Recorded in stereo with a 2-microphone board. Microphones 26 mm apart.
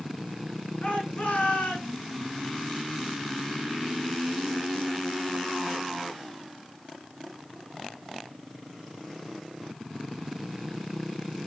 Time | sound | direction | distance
0.8 | a shout | 65° left (ahead or behind) | 7.5 m